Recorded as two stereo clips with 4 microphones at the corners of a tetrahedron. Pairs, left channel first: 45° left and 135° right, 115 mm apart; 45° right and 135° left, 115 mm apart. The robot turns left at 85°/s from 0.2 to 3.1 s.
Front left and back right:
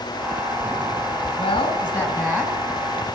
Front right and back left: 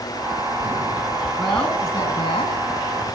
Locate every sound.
1.4 s a woman speaking: 45° left, 2 m; by 2.6 s 60° right, 2 m